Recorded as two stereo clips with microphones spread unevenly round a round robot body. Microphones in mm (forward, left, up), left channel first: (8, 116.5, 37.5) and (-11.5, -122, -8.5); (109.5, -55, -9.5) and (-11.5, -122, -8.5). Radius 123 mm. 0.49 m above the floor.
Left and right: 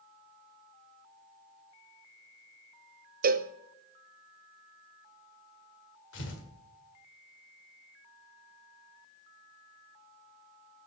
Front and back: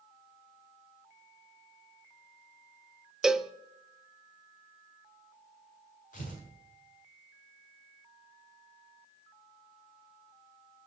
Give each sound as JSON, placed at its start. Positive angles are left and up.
{"t": 3.2, "sound": "a cowbell", "azimuth_deg": -65, "distance_m": 0.5}
{"t": 6.1, "sound": "tearing paper", "azimuth_deg": 45, "distance_m": 1.8}